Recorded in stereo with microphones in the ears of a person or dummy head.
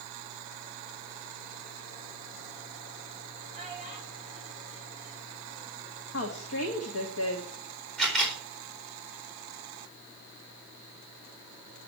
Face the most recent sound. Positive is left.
turn(degrees=0)  # may be behind; listen again after turning